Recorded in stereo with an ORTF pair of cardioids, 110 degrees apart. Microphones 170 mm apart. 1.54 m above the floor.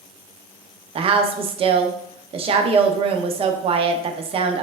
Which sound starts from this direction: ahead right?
A woman speaking, at 0.9 s.